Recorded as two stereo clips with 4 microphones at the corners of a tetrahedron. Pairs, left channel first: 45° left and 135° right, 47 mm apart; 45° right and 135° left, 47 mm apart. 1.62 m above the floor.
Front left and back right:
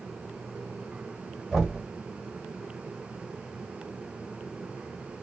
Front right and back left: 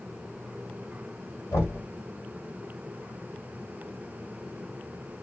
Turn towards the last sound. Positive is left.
turn(degrees=-45)